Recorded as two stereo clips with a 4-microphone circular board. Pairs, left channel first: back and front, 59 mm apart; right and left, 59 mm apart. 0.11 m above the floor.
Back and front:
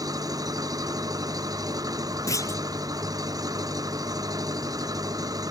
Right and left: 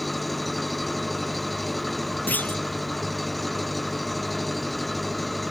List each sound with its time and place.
0.0 s an engine running: straight ahead
2.3 s a clunk: 150° right